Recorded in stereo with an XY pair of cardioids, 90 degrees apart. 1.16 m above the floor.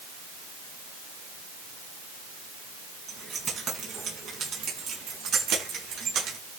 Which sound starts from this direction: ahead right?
Keys jangling, at 3.1 s.